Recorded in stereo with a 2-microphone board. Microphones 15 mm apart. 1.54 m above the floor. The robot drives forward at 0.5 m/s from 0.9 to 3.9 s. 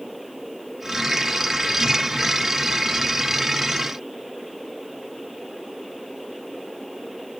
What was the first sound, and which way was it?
Only background noise.